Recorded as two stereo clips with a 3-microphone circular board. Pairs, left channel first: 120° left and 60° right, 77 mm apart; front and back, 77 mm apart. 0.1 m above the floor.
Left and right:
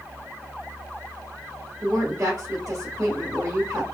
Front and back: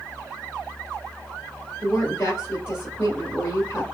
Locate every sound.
1.8 s a woman speaking: 45° right, 1.5 m